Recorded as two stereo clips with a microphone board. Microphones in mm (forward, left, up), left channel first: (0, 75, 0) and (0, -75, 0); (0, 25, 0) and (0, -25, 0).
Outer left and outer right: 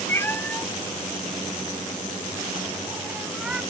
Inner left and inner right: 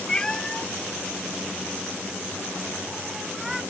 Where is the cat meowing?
15° left (ahead or behind); by 3.6 s 5° right (ahead or behind).